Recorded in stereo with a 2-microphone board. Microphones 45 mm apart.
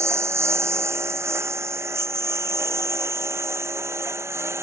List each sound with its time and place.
0.0 s a lawn mower: 85° right